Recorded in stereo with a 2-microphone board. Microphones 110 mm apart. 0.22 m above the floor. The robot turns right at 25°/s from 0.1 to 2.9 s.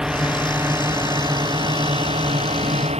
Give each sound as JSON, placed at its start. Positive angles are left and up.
{"t": 0.0, "sound": "a drone", "azimuth_deg": -175}